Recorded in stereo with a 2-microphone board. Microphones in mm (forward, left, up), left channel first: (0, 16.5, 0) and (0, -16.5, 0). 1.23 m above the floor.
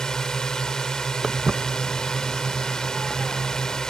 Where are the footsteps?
5° right (ahead or behind); by 3.8 s 5° left (ahead or behind).